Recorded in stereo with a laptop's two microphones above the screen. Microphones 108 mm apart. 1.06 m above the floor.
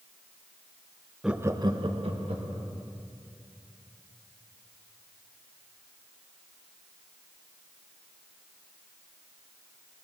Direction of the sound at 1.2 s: 5° right (ahead or behind).